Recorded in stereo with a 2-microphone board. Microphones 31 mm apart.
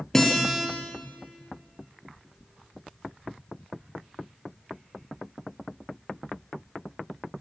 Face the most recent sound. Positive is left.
turn(degrees=10)  # may be behind; listen again after turning